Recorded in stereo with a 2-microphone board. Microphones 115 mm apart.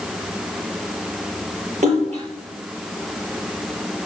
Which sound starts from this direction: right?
A splash, at 1.8 s.